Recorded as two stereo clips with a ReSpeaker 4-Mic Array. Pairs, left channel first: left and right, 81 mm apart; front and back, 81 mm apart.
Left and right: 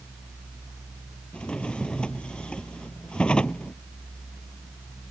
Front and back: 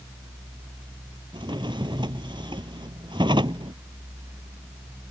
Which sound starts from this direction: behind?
A drawer, at 1.3 s.